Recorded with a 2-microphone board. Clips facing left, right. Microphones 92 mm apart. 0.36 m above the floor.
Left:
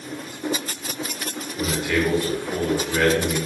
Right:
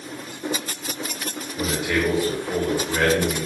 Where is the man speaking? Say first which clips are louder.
Even; 10° right (ahead or behind), 1.2 m.